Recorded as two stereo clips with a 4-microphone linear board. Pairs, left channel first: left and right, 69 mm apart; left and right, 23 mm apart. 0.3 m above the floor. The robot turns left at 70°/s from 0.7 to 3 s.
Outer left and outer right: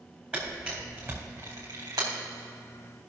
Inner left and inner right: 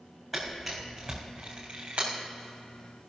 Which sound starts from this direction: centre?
A camera shutter, at 0.3 s.